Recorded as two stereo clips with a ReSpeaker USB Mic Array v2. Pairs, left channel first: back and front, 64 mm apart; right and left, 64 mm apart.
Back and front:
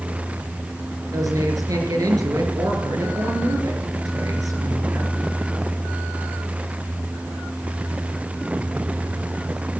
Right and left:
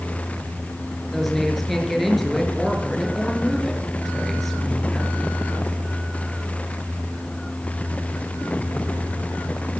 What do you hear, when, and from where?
1.1 s a woman speaking: 5° right, 3.5 m